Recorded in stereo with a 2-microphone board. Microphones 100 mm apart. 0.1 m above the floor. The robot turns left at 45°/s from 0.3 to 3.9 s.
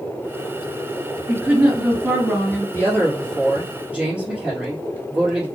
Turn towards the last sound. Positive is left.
turn(degrees=-15)